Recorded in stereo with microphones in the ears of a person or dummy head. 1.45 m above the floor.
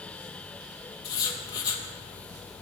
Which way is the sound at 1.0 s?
25° left (ahead or behind).